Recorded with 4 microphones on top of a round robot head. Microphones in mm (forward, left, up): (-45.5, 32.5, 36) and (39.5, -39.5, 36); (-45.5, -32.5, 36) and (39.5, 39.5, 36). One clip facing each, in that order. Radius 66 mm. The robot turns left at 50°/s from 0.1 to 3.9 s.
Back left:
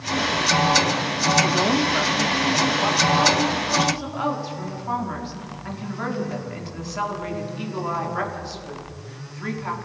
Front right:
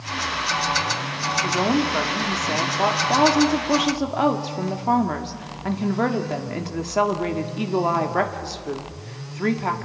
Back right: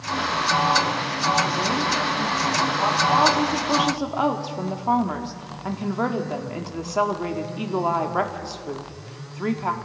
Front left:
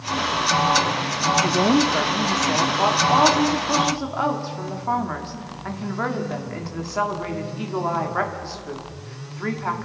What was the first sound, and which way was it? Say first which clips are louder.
A woman speaking: even, front left 5 dB; 55° left.